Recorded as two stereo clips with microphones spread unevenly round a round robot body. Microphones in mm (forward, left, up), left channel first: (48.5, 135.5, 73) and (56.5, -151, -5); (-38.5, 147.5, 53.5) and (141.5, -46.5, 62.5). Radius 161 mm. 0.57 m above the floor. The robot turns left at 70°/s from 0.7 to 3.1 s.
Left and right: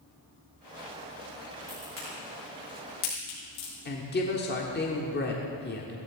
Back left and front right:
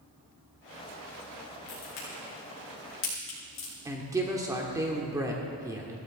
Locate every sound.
1.7 s a crack: 165° right, 6.5 m; by 3.7 s 95° left, 6.5 m
3.9 s a woman speaking: 30° left, 1.7 m